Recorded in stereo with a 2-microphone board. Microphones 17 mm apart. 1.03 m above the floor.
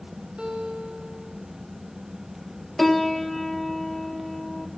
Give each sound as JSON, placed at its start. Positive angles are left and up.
{"t": 0.4, "sound": "a guitar", "side_deg": -60, "distance_m": 3.0}
{"t": 2.8, "sound": "a piano", "side_deg": 5, "distance_m": 1.6}